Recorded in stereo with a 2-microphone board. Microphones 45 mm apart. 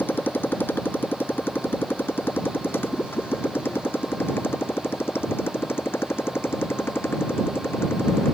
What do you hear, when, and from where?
0.0 s a motorcycle: 50° left (ahead or behind); by 8.3 s 70° left (ahead or behind)